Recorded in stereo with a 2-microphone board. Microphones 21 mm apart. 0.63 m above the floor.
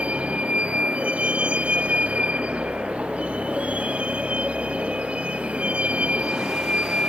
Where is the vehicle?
80° right.